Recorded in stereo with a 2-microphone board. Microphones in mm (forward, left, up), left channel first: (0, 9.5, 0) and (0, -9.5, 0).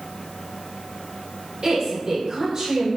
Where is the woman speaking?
45° right (ahead or behind), 1.8 m.